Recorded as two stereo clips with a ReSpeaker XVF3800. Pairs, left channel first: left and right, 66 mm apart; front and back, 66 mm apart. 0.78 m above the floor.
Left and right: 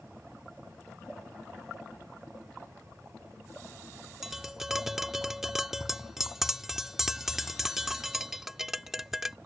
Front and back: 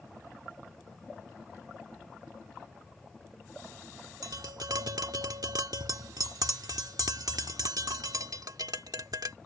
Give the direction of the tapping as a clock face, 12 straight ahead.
6 o'clock.